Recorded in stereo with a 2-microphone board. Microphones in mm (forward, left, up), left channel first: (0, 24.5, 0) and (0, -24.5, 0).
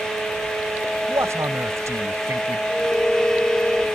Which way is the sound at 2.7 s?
10° left (ahead or behind).